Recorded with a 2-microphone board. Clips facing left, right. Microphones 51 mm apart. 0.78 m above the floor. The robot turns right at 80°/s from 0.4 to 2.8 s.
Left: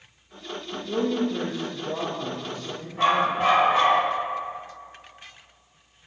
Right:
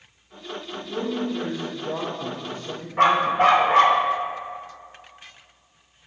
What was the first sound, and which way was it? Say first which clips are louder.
A man speaking: left 3 dB; 85° left.